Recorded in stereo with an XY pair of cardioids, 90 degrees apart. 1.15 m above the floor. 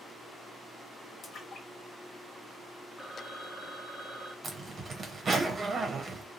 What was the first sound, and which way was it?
A splash, 55° left.